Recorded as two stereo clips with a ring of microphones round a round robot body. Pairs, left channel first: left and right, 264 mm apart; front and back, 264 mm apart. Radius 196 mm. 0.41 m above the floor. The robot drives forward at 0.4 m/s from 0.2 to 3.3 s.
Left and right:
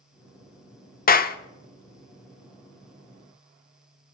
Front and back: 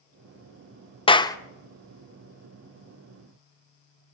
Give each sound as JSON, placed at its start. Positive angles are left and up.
{"t": 1.1, "sound": "a clap", "azimuth_deg": 60, "distance_m": 0.9}